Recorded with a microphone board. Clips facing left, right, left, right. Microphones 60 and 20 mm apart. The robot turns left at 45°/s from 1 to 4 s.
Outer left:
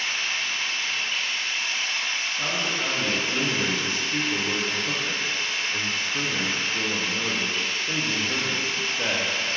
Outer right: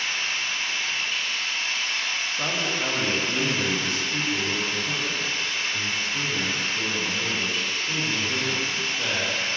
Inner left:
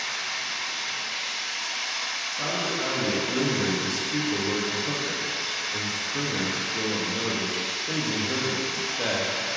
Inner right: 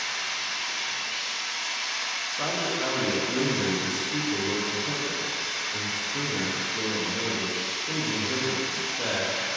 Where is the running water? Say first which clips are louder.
Even, even; 165° right, 1.9 m; by 9.6 s 60° left, 1.9 m.